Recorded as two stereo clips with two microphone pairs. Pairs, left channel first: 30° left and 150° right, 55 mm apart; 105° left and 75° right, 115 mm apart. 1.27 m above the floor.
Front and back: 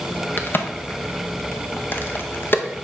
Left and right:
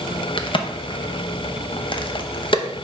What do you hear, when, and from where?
0.4 s a crack: 70° left, 0.7 m